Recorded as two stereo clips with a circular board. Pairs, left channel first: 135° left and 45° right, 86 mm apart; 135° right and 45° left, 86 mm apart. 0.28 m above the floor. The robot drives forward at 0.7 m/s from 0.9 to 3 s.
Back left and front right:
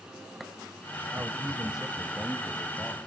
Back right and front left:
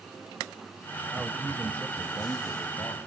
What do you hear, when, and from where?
1.1 s a man speaking: 35° right, 1.0 m; by 3.0 s 165° right, 1.3 m